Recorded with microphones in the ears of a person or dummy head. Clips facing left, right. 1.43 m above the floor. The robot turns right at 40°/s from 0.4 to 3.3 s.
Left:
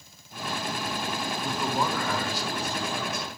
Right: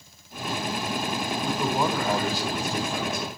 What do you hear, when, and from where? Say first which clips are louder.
1.4 s a man speaking: right 3 dB; 175° left, 6 m; by 3.3 s 110° right, 6 m